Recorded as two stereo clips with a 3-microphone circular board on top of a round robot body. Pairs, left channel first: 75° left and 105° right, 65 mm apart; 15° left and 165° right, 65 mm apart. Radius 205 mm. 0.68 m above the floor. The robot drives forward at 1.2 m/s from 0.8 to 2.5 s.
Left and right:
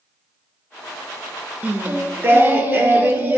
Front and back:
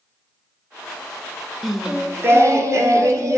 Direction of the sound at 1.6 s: 70° right.